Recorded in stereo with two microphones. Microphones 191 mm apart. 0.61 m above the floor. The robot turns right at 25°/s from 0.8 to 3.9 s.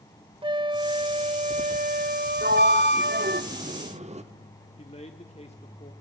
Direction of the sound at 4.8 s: 35° left (ahead or behind).